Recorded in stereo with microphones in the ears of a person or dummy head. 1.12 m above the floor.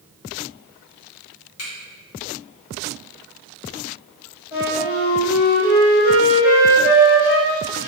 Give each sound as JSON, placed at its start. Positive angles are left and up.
{"t": 1.6, "sound": "a finger snap", "side_deg": 75, "distance_m": 1.7}
{"t": 4.5, "sound": "a flute", "side_deg": 55, "distance_m": 1.6}